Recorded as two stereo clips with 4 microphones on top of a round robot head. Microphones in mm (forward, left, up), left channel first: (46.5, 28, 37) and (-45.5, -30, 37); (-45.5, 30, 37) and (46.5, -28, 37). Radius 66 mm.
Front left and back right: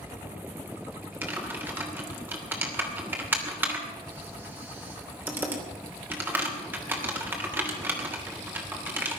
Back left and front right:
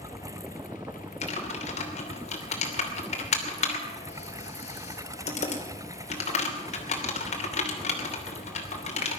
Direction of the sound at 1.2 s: 140° left.